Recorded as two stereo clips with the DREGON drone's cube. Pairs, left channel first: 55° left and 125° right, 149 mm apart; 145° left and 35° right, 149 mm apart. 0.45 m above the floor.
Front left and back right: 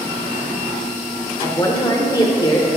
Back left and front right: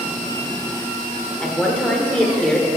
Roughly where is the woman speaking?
Left.